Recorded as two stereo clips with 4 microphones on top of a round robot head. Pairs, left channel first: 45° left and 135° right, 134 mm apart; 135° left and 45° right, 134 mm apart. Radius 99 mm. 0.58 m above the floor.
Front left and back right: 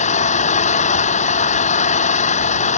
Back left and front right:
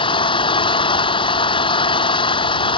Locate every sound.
0.0 s an engine running: 80° left